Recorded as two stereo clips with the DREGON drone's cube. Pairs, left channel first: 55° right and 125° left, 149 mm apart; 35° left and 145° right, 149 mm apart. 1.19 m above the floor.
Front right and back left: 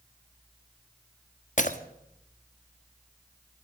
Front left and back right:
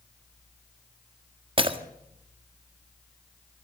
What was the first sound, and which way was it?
Breaking glass, 90° right.